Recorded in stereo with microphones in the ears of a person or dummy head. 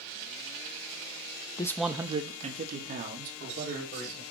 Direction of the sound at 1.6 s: 25° left (ahead or behind).